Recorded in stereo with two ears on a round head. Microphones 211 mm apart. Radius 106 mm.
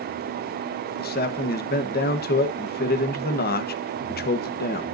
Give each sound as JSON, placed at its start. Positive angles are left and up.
{"t": 1.0, "sound": "a man speaking", "side_deg": 45, "distance_m": 1.1}